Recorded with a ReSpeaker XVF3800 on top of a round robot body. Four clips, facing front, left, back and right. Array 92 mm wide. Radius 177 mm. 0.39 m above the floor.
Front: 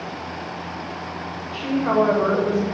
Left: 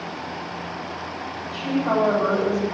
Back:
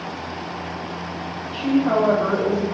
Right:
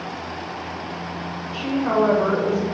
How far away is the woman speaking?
About 2.0 m.